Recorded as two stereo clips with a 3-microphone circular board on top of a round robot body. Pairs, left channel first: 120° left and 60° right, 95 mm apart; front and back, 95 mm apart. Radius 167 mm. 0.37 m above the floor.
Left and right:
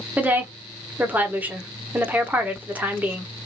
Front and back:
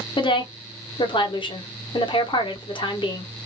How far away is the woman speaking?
About 1.4 m.